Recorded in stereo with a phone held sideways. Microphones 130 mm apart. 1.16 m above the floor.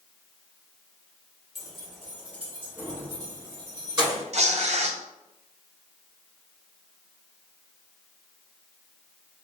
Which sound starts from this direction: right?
Tearing paper, at 4.3 s.